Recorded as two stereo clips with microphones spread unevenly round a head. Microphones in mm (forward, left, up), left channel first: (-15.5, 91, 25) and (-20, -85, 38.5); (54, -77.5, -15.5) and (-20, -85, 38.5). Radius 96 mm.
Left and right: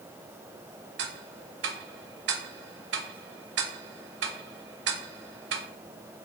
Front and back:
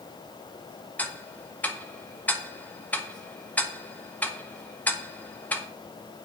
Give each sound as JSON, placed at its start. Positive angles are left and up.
{"t": 1.0, "sound": "ticking", "azimuth_deg": -65, "distance_m": 1.5}